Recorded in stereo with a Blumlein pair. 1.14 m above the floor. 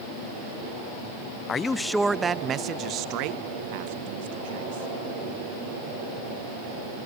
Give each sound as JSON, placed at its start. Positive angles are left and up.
{"t": 1.5, "sound": "a man speaking", "azimuth_deg": 20, "distance_m": 0.5}